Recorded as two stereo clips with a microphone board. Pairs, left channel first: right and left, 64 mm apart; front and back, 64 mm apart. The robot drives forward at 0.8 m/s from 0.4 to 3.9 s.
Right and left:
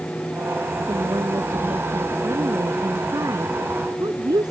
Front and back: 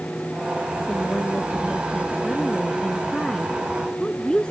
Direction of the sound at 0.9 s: 70° left.